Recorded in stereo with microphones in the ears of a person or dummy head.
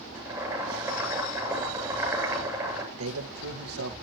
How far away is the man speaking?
About 1.5 m.